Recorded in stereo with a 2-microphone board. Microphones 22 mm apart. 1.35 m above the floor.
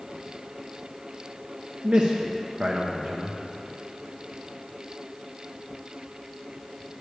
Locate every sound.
1.8 s a man speaking: 65° right (ahead or behind), 0.9 m